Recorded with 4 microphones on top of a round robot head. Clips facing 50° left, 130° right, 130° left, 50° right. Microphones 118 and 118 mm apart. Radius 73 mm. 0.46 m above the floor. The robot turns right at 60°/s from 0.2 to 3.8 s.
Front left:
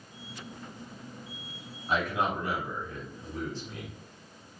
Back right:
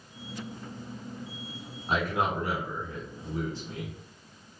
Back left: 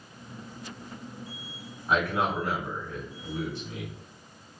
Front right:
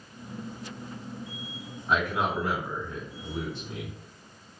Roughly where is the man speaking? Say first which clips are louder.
Back right 1 dB, back left 1 dB; behind.